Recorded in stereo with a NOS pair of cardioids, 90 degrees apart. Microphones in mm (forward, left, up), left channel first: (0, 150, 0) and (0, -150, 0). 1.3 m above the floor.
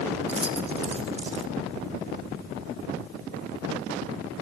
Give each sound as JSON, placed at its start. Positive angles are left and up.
{"t": 0.3, "sound": "keys jangling", "azimuth_deg": -20, "distance_m": 1.7}